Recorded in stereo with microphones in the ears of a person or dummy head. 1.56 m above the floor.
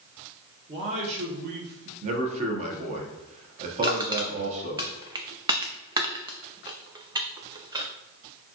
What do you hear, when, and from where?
0.7 s a man speaking: 30° right (ahead or behind), 1.3 m; by 1.9 s 65° right (ahead or behind), 1.2 m
2.0 s a man speaking: 40° right (ahead or behind), 1.1 m
3.8 s crushing: 20° right (ahead or behind), 0.5 m